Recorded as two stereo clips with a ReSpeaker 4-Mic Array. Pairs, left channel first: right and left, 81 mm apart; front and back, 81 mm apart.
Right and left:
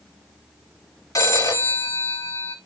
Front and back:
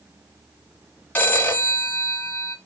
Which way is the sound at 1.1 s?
60° right.